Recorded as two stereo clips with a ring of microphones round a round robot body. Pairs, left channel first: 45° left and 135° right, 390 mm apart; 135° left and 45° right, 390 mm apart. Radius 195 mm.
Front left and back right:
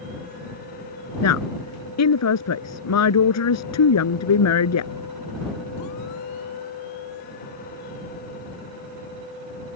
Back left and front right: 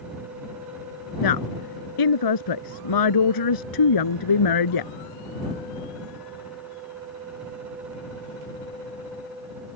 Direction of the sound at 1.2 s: 95° left.